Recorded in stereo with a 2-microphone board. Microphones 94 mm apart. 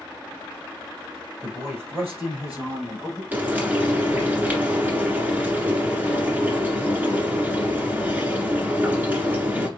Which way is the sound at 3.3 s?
20° right (ahead or behind).